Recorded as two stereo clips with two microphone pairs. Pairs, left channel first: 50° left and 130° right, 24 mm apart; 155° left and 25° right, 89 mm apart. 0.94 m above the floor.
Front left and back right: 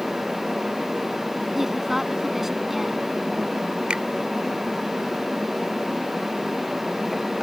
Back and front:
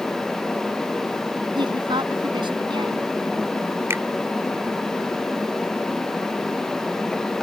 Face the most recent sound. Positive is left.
turn(degrees=-85)